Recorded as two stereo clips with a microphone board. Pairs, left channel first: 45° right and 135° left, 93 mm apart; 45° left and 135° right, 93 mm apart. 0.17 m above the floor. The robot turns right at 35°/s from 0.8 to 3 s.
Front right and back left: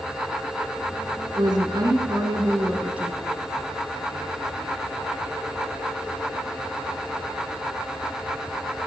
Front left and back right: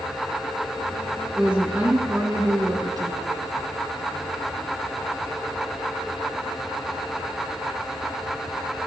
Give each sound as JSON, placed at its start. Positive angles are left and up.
{"t": 1.4, "sound": "a woman speaking", "azimuth_deg": 145, "distance_m": 1.7}